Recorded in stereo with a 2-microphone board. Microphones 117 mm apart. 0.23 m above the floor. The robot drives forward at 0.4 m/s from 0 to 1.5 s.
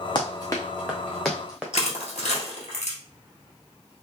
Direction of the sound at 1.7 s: 75° left (ahead or behind).